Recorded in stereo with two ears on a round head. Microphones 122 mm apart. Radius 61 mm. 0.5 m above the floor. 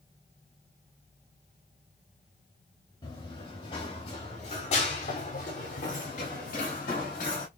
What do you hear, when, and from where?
3.0 s running footsteps: 35° left (ahead or behind), 2 m; by 7.5 s 65° left (ahead or behind), 4 m